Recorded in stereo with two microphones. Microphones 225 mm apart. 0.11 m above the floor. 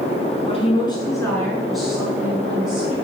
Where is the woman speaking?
25° left (ahead or behind), 1.3 m; by 3.0 s 25° right (ahead or behind), 1.3 m.